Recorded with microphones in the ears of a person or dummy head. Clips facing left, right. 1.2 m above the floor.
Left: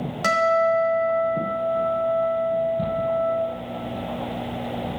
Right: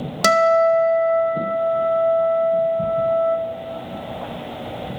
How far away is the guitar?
About 0.6 m.